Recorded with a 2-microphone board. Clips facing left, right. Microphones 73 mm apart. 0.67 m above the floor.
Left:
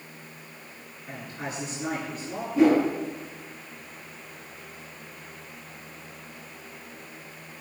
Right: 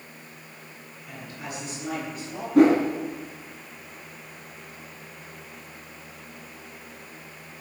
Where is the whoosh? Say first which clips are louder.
Right 3 dB; 65° right (ahead or behind), 7.5 m.